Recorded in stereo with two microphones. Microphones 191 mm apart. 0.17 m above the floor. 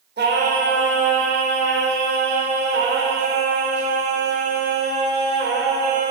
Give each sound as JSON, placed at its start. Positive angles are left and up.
{"t": 0.2, "sound": "singing", "side_deg": -65, "distance_m": 1.6}